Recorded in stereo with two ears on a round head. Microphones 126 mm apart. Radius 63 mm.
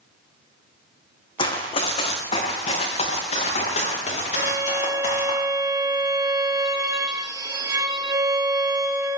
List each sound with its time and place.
1.4 s running footsteps: 35° left (ahead or behind), 2.5 m; by 5.3 s 50° left (ahead or behind), 8 m
4.3 s a violin: 25° right (ahead or behind), 1.0 m